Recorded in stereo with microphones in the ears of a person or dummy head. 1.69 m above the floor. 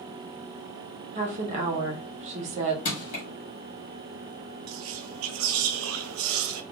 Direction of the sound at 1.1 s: 35° right (ahead or behind).